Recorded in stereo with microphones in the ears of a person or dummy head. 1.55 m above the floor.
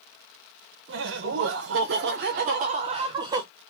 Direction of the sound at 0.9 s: 60° right (ahead or behind).